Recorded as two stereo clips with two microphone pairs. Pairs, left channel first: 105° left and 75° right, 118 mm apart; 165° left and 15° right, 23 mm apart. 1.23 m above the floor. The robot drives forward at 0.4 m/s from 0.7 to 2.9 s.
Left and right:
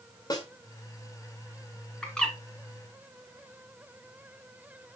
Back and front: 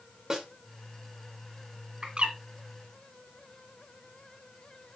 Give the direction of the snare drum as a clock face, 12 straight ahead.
10 o'clock.